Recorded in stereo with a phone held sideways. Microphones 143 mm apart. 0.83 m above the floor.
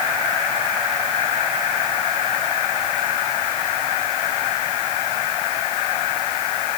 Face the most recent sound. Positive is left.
No sound to turn to.